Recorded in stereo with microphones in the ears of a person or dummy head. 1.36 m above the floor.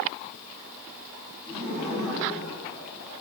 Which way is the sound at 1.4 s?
10° right (ahead or behind).